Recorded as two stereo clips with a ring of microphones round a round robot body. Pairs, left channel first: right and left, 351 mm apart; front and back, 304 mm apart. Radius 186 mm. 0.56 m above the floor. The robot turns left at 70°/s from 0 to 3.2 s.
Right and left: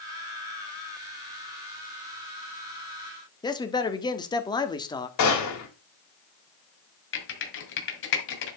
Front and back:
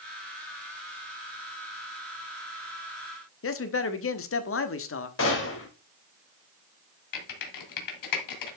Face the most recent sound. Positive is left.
turn(degrees=-30)